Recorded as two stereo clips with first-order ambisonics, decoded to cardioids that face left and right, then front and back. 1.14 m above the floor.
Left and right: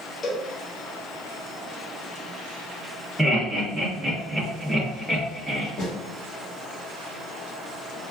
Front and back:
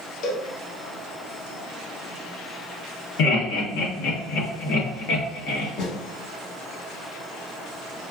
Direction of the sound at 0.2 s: 25° left.